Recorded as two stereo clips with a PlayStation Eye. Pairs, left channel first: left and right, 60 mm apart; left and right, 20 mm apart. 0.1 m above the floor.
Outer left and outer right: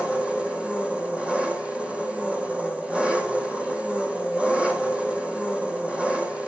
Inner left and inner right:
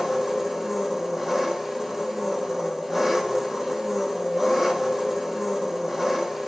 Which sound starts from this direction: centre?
An engine running, at 0.0 s.